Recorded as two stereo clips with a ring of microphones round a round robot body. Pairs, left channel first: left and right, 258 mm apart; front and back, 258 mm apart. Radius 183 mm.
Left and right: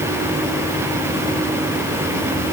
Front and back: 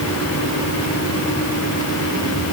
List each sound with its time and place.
Only background noise.